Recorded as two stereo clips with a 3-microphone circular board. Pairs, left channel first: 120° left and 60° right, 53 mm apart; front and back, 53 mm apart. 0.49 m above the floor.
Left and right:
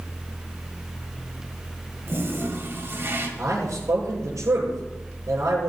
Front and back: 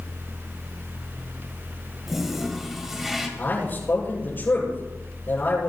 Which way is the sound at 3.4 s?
50° right.